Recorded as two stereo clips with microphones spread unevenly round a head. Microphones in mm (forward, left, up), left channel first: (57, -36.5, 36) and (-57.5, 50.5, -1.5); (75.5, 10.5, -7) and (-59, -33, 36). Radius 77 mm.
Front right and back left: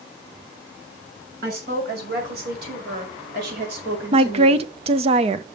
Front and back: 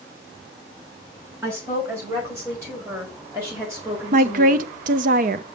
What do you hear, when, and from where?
1.4 s a woman speaking: 125° left, 5.5 m
4.1 s a woman speaking: 160° left, 0.7 m